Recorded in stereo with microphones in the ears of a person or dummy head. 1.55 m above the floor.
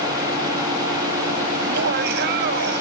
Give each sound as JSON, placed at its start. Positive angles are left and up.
{"t": 1.6, "sound": "laughter", "side_deg": -50}